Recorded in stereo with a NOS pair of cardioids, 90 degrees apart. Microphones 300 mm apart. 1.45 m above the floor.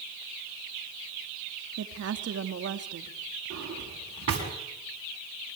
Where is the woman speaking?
55° right, 2.5 m.